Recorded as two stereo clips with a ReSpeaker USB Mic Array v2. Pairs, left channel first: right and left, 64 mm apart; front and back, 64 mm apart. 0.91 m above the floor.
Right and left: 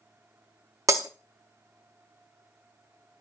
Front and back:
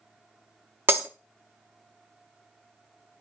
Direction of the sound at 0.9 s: 125° left.